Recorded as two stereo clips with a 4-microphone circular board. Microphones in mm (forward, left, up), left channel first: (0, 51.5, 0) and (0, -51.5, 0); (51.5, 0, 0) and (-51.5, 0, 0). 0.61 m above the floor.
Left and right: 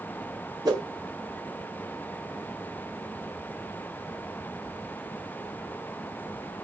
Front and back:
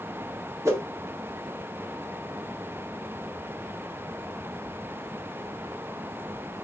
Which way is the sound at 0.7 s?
125° right.